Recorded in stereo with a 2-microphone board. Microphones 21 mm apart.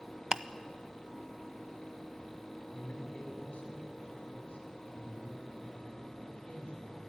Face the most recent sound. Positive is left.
turn(degrees=70)  # may be behind; listen again after turning